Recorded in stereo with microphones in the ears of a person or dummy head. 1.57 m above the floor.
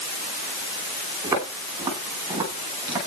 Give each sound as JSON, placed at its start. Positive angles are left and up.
{"t": 1.2, "sound": "footsteps", "side_deg": -20, "distance_m": 10.0}